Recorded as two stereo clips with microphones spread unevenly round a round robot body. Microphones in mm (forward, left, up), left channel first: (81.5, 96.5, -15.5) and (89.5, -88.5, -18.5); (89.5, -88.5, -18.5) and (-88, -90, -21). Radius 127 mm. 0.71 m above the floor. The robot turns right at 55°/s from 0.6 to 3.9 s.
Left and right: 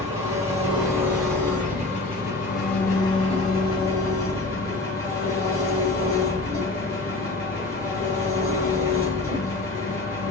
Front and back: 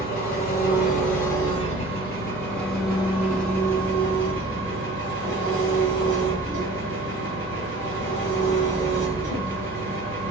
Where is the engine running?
35° right, 2 m; by 10.3 s 150° left, 2 m.